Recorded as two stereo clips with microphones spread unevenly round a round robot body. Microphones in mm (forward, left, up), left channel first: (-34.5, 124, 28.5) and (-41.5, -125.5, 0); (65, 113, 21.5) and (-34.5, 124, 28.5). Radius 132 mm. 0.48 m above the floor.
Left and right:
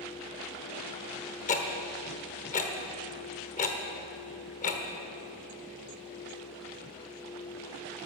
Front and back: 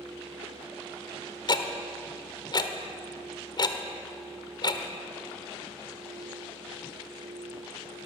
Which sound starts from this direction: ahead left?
Ticking, at 1.5 s.